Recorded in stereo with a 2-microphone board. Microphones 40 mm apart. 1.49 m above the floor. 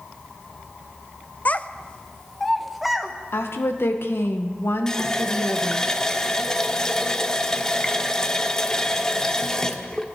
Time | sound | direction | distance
1.4 | a child speaking | 40° left (ahead or behind) | 0.6 m
3.3 | a woman speaking | 80° left | 1.6 m
4.9 | a running tap | 15° left (ahead or behind) | 0.8 m